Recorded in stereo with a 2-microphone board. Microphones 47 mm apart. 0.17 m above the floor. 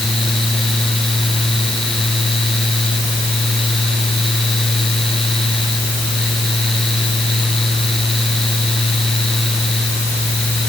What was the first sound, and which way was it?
Only background noise.